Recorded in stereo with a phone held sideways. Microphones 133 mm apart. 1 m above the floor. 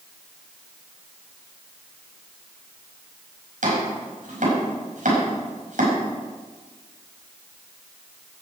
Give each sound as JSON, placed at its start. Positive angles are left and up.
{"t": 3.6, "sound": "chopping", "side_deg": -75, "distance_m": 5.0}